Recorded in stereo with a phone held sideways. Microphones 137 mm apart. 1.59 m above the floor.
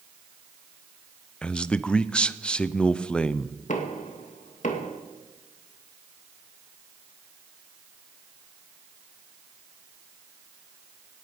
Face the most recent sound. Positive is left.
turn(degrees=65)  # may be behind; listen again after turning